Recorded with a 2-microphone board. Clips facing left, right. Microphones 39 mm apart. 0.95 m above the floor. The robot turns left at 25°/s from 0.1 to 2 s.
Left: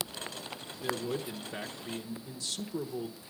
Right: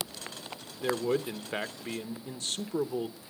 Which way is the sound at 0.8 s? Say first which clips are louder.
Right 5 dB; 45° right (ahead or behind).